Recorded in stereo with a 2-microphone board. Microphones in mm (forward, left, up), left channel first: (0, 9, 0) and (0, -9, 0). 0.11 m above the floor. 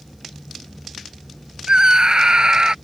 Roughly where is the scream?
Right.